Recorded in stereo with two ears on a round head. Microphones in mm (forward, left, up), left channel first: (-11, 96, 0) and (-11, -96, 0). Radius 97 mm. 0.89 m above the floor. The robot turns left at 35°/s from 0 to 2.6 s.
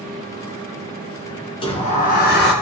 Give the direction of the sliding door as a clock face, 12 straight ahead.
7 o'clock.